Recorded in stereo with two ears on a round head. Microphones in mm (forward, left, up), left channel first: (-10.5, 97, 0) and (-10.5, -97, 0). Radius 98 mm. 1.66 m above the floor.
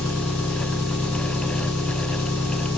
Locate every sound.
0.0 s an engine running: 70° left (ahead or behind), 4 m